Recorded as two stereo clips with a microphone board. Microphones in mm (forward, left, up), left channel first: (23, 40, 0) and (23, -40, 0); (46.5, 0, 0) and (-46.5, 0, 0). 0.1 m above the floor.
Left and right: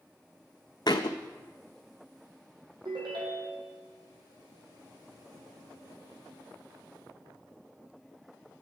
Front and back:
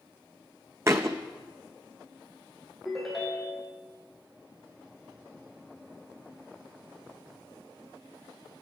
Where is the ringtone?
90° right, 2 m.